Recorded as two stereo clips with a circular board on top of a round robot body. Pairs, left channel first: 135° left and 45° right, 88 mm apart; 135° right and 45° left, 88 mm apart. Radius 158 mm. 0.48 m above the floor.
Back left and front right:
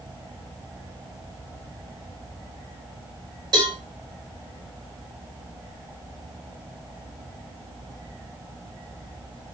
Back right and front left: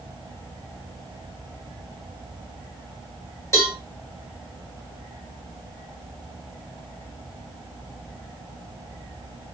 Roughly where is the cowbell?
Right.